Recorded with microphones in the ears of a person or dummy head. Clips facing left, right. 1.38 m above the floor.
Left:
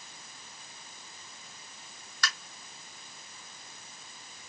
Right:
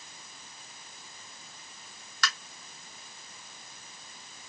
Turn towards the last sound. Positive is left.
turn(degrees=-55)  # may be behind; listen again after turning